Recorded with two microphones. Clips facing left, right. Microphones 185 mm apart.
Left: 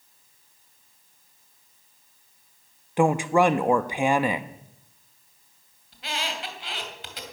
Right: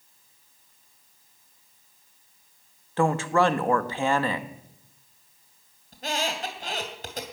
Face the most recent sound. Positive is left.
turn(degrees=-40)  # may be behind; listen again after turning